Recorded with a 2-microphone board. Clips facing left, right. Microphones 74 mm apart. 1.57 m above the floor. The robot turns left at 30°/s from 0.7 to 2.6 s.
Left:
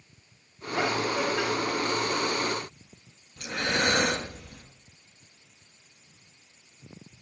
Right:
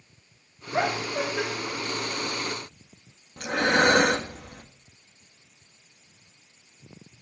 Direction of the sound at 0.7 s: 45° right (ahead or behind).